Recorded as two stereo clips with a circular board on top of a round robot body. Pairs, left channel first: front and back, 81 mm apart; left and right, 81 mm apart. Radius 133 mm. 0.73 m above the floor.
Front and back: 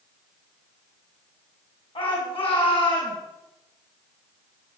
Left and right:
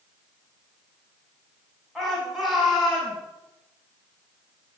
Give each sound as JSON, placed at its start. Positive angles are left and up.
{"t": 1.9, "sound": "a shout", "azimuth_deg": 0, "distance_m": 7.5}